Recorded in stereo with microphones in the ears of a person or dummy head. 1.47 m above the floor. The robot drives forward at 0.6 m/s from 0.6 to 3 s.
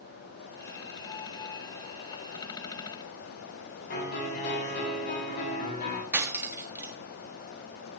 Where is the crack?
No crack in this recording.